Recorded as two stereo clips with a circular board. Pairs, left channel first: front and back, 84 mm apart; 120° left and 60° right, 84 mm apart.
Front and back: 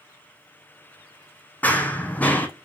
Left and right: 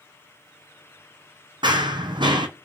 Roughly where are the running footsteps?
Right.